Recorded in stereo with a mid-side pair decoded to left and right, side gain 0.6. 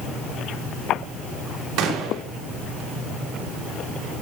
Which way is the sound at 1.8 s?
60° right.